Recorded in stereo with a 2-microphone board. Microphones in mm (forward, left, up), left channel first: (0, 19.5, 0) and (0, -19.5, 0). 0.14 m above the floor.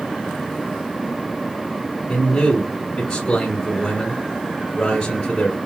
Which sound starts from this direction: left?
A man speaking, at 2.1 s.